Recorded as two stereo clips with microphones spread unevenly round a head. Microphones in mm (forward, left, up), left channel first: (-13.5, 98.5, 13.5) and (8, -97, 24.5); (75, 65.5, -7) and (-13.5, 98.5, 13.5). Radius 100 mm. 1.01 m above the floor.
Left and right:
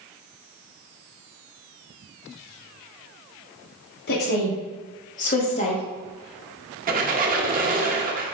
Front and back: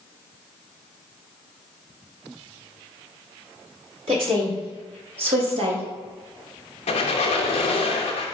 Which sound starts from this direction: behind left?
A woman speaking, at 4.1 s.